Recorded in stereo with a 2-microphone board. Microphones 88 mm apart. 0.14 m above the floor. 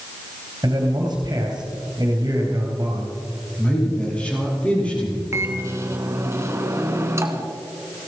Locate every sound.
0.6 s a man speaking: 45° right (ahead or behind), 3 m
3.6 s a man speaking: 15° left (ahead or behind), 5 m
5.3 s a microwave: 30° right (ahead or behind), 1.2 m